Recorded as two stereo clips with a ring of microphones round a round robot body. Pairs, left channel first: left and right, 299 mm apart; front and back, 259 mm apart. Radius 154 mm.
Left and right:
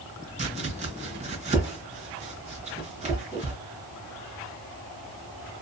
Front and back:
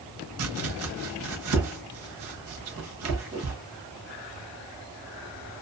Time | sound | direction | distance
0.4 | chopping | 155° right | 0.8 m